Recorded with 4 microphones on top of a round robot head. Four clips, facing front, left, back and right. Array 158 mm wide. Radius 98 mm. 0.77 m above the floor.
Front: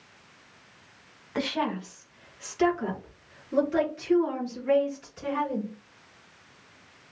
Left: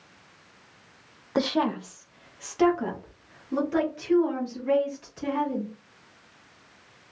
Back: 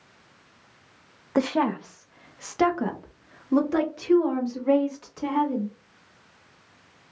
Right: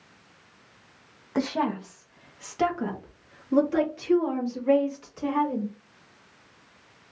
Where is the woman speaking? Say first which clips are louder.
Left 1 dB, back 6 dB; 150° left, 0.6 m; by 5.7 s 175° right, 3 m.